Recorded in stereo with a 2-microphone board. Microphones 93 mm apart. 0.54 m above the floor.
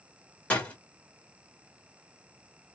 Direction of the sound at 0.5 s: 15° left (ahead or behind).